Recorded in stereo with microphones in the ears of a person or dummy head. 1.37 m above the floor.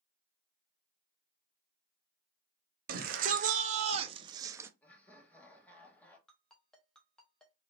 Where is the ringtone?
5° left (ahead or behind), 1.3 m.